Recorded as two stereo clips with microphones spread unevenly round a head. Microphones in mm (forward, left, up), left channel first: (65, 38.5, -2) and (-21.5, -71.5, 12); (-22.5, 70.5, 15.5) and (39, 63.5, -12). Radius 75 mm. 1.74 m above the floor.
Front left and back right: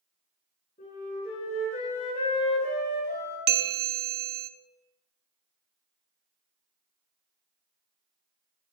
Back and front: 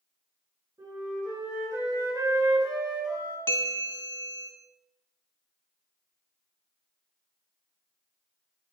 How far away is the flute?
About 4 m.